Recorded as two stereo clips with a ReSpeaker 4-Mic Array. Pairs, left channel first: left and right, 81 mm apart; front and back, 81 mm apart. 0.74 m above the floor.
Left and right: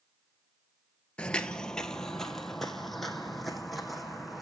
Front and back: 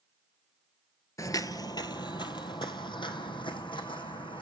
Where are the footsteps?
20° left, 0.9 m; by 4.4 s straight ahead, 3 m.